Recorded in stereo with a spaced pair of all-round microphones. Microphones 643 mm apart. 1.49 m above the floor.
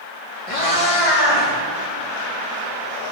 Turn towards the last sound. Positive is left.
turn(degrees=65)  # may be behind; listen again after turning